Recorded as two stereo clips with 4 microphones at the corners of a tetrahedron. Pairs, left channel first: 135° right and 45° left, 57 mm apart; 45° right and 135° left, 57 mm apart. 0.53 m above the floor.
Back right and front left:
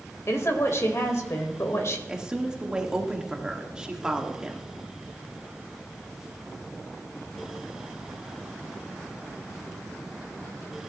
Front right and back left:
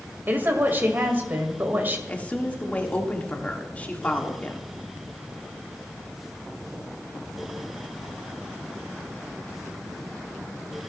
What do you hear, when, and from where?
0.3 s a woman speaking: 170° right, 1.8 m
2.1 s a woman speaking: 15° right, 1.2 m